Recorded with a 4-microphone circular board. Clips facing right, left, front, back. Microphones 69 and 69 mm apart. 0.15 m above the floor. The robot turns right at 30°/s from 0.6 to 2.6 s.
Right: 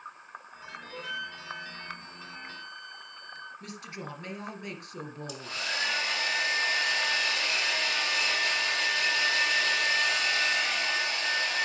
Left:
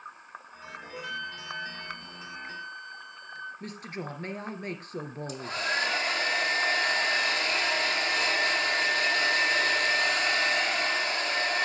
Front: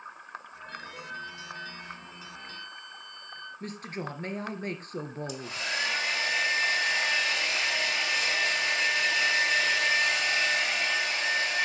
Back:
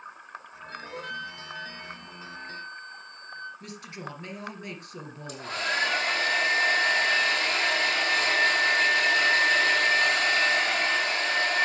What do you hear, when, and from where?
0.9 s a flute: straight behind, 2 m; by 3.5 s 130° right, 2 m
3.6 s a woman speaking: 45° left, 2.5 m
5.3 s a hair dryer: 140° left, 3 m